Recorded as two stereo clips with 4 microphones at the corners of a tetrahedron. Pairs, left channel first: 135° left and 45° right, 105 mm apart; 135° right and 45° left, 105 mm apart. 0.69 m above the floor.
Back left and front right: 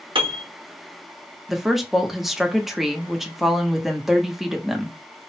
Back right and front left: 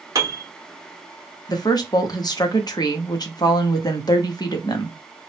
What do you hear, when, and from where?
0.1 s a piano: 10° right, 0.8 m
1.5 s a woman speaking: 130° right, 0.7 m